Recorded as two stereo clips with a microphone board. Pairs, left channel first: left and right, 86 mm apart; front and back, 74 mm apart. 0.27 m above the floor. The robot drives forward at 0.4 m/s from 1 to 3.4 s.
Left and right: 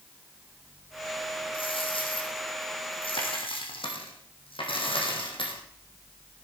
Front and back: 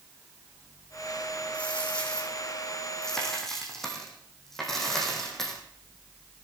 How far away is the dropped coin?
About 3.5 m.